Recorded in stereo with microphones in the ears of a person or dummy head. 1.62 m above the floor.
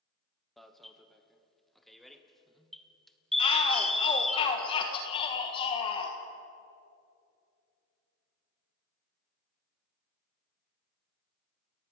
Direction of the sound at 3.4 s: 30° left (ahead or behind).